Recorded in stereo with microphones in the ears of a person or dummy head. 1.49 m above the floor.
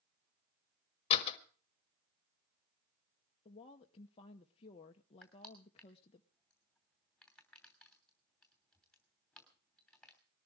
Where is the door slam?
45° left (ahead or behind), 1.8 m.